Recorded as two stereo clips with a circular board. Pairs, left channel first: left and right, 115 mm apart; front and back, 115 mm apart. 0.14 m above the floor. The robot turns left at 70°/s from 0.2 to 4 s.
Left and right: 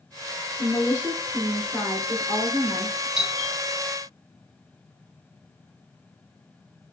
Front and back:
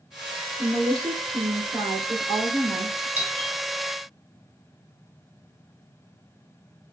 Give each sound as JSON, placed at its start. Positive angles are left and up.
{"t": 0.6, "sound": "a woman speaking", "azimuth_deg": -115, "distance_m": 1.8}
{"t": 3.2, "sound": "a doorbell", "azimuth_deg": -160, "distance_m": 1.6}